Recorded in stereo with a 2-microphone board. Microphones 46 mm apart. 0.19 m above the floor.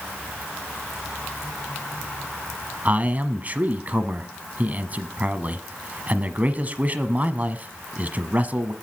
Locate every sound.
2.9 s a man speaking: 30° right (ahead or behind), 1.1 m